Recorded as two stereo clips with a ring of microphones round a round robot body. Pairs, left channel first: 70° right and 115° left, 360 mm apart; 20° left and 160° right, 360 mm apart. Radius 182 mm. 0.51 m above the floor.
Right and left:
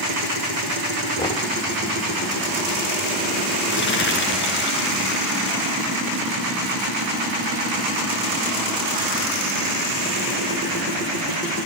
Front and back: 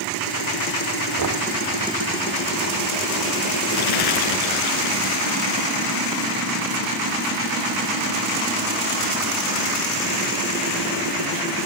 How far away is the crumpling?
About 4.5 m.